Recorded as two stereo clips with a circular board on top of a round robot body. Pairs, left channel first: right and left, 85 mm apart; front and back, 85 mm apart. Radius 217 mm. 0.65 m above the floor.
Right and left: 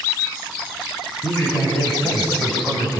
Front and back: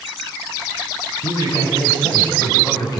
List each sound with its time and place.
1.2 s a man speaking: 25° right, 6 m; by 3.0 s 40° right, 4.5 m